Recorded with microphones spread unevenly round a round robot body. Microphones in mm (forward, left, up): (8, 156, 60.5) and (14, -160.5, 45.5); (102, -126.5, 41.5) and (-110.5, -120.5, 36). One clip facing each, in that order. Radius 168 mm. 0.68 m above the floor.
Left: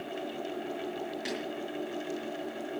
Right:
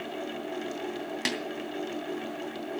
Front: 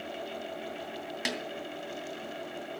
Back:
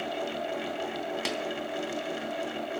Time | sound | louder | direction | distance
1.2 | a snare drum | right 4 dB, front 1 dB | 75° right | 3 m